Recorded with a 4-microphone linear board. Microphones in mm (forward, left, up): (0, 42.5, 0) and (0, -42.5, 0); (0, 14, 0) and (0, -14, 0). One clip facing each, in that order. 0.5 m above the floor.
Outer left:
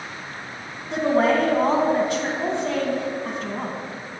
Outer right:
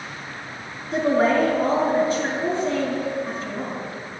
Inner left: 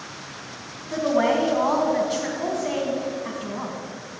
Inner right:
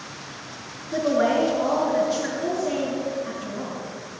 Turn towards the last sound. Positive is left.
turn(degrees=70)  # may be behind; listen again after turning